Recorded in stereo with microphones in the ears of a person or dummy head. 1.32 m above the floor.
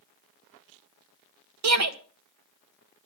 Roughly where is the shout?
Right.